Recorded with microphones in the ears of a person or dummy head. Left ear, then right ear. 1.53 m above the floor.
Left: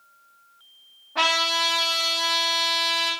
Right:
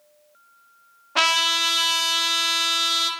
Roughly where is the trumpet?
Right.